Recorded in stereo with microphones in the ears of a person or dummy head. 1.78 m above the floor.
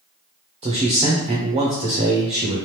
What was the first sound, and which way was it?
A man speaking, 15° right (ahead or behind).